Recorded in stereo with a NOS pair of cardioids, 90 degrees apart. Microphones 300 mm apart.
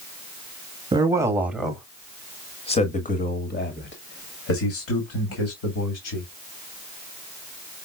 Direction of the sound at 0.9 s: 15° right.